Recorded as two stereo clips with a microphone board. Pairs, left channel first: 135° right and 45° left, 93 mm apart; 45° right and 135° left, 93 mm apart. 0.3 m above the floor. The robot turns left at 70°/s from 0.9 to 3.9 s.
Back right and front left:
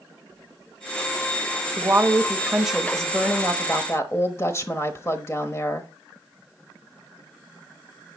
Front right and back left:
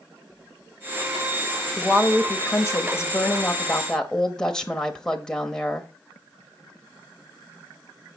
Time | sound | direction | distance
1.8 | a woman speaking | 30° left | 1.0 m